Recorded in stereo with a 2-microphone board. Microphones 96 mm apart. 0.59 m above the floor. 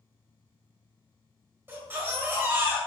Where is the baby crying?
20° right (ahead or behind), 1.2 m.